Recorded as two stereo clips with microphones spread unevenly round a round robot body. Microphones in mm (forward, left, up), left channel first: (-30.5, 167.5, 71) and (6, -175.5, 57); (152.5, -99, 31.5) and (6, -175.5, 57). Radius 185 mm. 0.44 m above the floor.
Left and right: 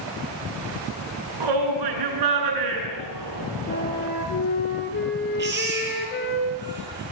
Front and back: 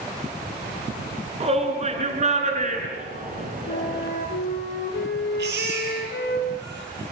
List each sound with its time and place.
1.4 s a shout: 100° right, 8 m; by 4.1 s 120° right, 7.5 m
3.7 s a flute: 35° left, 5.5 m
5.4 s a baby crying: 145° right, 9.5 m